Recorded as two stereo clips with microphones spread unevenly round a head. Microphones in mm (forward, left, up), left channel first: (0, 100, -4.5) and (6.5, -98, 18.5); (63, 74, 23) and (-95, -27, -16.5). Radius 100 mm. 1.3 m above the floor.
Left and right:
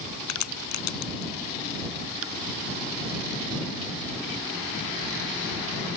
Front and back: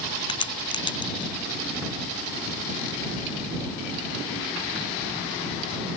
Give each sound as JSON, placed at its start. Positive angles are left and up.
{"t": 0.3, "sound": "a crack", "azimuth_deg": 95}